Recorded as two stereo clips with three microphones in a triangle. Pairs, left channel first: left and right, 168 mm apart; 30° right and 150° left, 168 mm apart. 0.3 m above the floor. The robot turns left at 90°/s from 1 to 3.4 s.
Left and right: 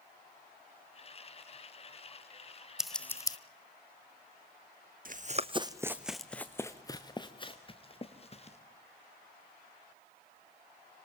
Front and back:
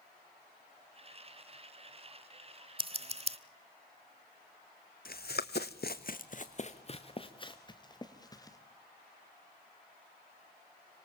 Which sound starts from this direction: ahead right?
Running footsteps, at 5.0 s.